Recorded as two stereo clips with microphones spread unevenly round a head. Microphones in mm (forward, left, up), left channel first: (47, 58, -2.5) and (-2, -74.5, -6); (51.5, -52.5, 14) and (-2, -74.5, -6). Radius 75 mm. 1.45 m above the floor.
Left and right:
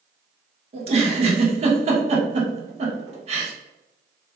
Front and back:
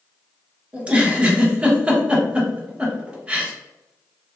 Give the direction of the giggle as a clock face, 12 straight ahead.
3 o'clock.